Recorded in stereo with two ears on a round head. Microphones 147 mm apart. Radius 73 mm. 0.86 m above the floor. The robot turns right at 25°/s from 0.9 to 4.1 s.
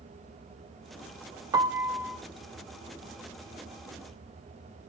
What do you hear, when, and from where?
1.5 s a piano: 20° right (ahead or behind), 0.5 m; by 2.2 s 5° right (ahead or behind), 0.5 m